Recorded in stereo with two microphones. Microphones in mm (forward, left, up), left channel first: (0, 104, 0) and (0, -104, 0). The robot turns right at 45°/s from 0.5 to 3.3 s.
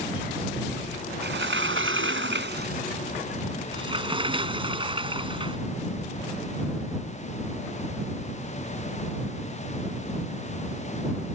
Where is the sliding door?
120° right; by 5.6 s 25° right.